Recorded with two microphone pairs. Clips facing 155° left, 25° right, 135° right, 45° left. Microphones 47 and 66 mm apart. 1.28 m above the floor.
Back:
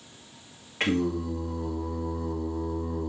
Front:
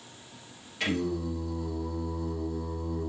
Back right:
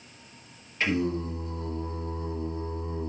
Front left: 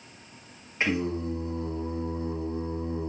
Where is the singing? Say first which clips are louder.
Back 3 dB, even; 105° left, 1.8 m.